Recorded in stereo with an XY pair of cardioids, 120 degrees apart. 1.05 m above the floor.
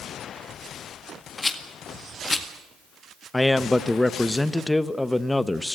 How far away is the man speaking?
About 0.9 m.